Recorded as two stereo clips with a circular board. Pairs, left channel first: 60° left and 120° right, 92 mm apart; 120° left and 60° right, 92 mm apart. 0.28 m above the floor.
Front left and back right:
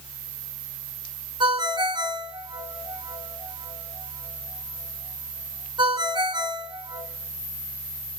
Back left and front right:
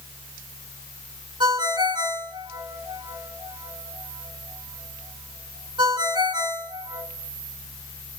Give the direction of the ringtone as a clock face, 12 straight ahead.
3 o'clock.